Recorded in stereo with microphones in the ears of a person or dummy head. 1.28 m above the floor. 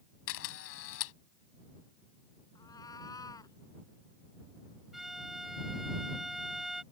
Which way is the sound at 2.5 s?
20° left (ahead or behind).